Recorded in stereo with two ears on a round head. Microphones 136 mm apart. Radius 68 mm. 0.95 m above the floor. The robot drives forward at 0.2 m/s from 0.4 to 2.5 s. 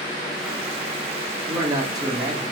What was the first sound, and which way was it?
A man speaking, 25° right (ahead or behind).